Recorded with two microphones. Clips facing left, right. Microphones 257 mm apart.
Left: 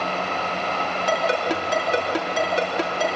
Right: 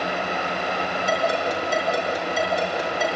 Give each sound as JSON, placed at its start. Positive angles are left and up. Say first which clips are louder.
{"t": 1.1, "sound": "a ringtone", "louder": "left 2 dB", "side_deg": 85, "distance_m": 4.0}